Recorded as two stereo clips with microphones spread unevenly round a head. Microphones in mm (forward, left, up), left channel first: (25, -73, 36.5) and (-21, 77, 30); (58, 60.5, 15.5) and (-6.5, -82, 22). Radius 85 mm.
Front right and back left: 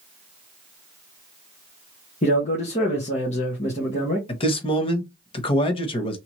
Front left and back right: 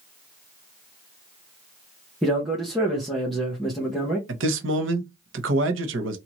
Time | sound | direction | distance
2.2 | a man speaking | 25° right | 1.2 m
4.3 | a man speaking | 130° right | 0.9 m